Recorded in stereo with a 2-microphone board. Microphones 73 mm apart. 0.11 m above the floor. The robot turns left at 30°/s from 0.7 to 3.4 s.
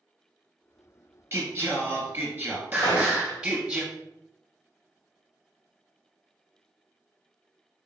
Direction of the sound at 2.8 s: 80° left.